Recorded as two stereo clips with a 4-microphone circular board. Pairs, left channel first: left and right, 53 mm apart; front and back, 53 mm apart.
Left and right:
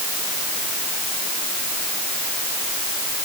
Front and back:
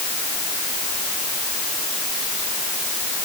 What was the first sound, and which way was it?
Only background noise.